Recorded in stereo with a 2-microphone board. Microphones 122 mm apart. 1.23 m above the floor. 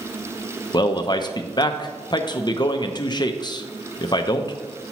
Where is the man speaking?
35° left (ahead or behind), 0.5 m.